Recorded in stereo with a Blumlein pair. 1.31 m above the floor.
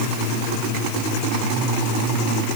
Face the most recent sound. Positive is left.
No sound to turn to.